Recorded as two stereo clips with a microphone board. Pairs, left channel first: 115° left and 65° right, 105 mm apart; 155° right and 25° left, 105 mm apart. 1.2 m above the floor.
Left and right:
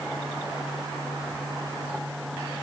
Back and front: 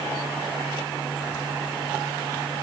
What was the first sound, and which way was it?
Only background noise.